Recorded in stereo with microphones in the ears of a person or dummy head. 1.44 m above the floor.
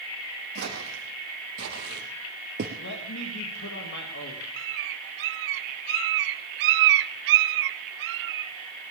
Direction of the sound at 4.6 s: 60° right (ahead or behind).